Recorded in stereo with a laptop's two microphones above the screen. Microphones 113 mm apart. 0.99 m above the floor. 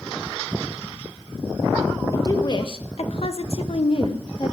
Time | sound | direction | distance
2.1 | a woman speaking | 30° left (ahead or behind) | 1.0 m